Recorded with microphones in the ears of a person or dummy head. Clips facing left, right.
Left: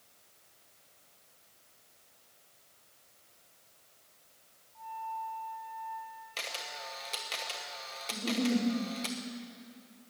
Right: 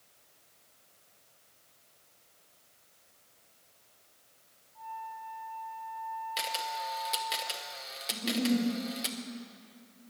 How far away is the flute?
About 2.5 m.